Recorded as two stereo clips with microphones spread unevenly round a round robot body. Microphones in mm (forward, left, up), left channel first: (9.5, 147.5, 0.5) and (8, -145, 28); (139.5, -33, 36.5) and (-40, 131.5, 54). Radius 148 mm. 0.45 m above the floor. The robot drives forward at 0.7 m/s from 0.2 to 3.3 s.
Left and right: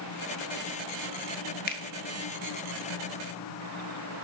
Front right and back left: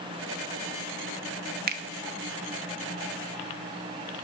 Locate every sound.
1.7 s a finger snap: 110° left, 0.6 m; by 1.8 s 120° left, 0.6 m